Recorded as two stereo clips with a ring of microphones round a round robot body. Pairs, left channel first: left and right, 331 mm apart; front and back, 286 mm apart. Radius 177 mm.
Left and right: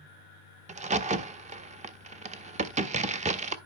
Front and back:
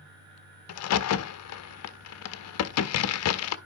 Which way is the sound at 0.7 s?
20° right.